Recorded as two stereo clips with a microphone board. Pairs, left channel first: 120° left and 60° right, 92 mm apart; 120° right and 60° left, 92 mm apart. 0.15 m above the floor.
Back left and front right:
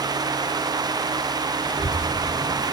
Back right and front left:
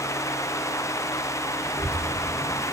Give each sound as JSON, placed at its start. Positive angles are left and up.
{"t": 1.6, "sound": "a child speaking", "azimuth_deg": 125, "distance_m": 1.5}